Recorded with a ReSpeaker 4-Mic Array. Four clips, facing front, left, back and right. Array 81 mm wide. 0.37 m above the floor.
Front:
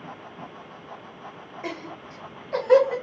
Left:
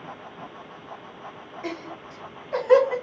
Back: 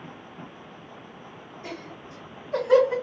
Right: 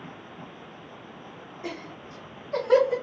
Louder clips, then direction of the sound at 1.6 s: Left 3 dB, front 4 dB; 35° left.